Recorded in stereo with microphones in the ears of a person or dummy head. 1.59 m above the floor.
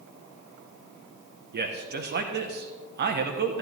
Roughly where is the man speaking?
Right.